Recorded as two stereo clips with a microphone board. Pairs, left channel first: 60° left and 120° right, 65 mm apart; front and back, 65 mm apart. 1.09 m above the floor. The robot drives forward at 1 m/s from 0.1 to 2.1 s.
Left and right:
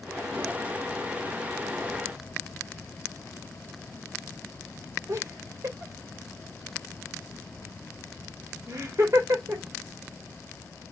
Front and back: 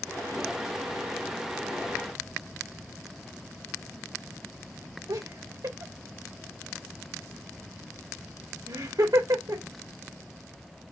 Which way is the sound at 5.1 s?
165° right.